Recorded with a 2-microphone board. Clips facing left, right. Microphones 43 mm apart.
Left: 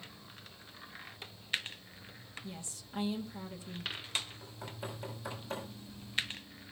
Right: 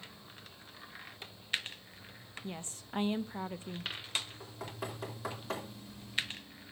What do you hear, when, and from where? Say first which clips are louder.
2.4 s a woman speaking: right 7 dB; 40° right (ahead or behind), 0.7 m
4.4 s knocking: right 2 dB; 75° right (ahead or behind), 3.5 m